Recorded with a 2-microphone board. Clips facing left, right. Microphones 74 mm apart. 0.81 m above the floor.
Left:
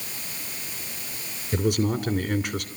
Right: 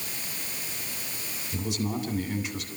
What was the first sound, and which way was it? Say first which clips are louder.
A man speaking: left 7 dB; 60° left (ahead or behind).